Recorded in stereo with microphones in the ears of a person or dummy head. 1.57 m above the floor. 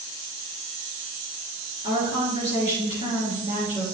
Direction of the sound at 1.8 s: 35° left (ahead or behind).